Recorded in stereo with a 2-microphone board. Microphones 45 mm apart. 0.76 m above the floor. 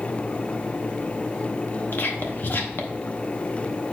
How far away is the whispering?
About 0.7 m.